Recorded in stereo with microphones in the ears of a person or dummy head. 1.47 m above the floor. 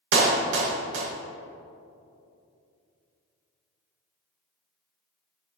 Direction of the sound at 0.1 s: 80° right.